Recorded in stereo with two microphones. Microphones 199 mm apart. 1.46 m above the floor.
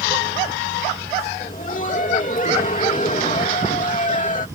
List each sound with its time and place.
1.4 s laughter: 40° left (ahead or behind)